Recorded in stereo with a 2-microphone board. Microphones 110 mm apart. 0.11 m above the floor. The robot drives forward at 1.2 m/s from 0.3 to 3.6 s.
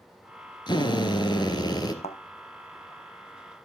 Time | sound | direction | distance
0.7 | a drill | 45° left (ahead or behind) | 2.5 m
2.0 | a thud | 75° left (ahead or behind) | 2.5 m